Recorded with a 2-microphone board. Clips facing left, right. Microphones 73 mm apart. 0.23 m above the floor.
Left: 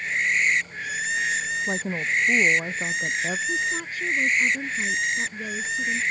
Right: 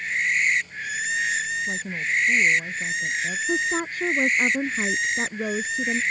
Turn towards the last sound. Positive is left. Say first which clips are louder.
# right 2 dB
turn(degrees=-45)  # may be behind; listen again after turning